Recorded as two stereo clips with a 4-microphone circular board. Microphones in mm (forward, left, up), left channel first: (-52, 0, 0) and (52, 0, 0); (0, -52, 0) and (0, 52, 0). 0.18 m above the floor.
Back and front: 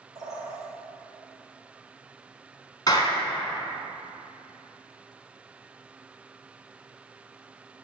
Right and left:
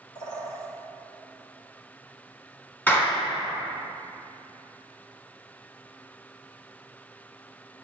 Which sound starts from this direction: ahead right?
A bird, at 0.1 s.